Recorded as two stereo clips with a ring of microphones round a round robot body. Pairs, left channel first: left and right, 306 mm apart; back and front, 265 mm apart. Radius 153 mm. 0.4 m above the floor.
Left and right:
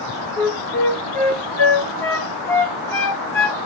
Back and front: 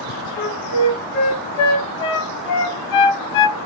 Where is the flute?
175° left, 0.8 m.